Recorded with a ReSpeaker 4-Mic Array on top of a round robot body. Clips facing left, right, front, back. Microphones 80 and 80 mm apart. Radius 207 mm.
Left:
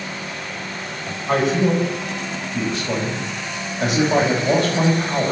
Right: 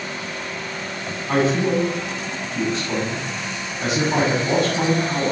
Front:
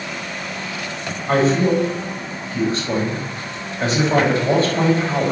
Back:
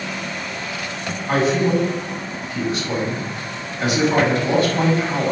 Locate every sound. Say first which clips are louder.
1.3 s a man speaking: left 1 dB, front 2 dB; 55° left, 5 m